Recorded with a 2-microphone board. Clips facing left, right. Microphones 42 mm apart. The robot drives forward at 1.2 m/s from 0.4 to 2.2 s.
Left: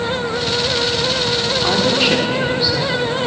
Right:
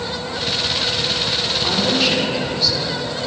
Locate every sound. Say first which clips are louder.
1.6 s a woman speaking: left 3 dB; 20° left (ahead or behind), 5 m; by 3.0 s 15° left (ahead or behind), 5.5 m